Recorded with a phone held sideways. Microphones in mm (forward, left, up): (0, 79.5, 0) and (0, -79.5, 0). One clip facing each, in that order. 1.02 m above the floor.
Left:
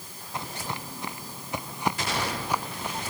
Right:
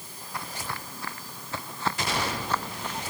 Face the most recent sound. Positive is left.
turn(degrees=10)  # may be behind; listen again after turning